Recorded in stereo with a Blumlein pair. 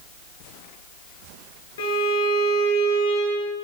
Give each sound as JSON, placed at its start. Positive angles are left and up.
{"t": 1.8, "sound": "a violin", "azimuth_deg": 60, "distance_m": 6.0}